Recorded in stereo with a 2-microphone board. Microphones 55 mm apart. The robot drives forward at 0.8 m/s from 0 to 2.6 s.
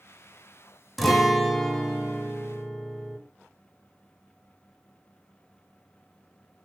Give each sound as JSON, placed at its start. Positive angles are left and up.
{"t": 1.0, "sound": "a guitar", "side_deg": 0, "distance_m": 0.5}